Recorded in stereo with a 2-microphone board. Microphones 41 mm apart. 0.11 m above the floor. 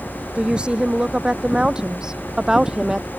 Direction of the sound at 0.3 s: 25° right (ahead or behind).